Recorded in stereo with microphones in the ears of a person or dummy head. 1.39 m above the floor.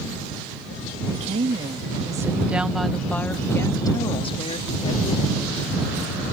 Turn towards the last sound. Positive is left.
turn(degrees=40)  # may be behind; listen again after turning